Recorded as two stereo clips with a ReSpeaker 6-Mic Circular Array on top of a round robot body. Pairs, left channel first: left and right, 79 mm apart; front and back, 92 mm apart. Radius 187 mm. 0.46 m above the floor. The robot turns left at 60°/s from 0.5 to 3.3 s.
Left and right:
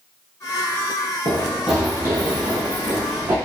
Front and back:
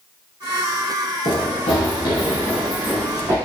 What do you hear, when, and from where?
1.2 s running footsteps: 40° left, 0.8 m; by 3.4 s 130° right, 2.5 m